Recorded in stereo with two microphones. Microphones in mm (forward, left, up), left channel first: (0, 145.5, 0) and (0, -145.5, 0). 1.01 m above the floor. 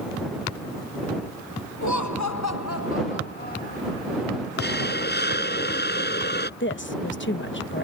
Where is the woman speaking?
40° left (ahead or behind).